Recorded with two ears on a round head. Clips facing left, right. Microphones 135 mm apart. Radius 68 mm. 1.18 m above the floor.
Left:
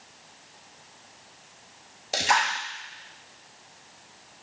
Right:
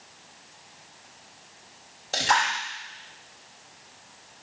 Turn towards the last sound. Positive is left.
turn(degrees=10)  # may be behind; listen again after turning